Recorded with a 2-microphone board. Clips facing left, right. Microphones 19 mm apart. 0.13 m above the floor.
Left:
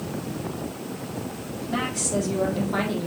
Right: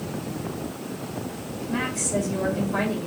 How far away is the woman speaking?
About 4 m.